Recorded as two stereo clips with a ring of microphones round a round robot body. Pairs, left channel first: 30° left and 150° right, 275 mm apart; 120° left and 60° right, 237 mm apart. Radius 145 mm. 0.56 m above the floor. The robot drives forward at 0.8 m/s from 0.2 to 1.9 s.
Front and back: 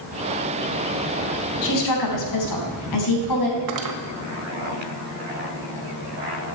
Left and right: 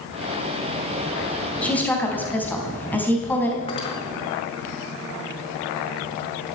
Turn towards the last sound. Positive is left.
turn(degrees=-170)